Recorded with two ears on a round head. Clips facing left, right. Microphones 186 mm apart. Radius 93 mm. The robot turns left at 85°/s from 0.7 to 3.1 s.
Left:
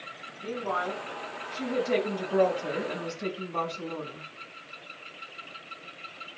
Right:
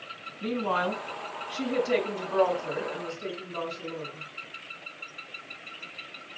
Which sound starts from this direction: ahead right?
A woman speaking, at 0.4 s.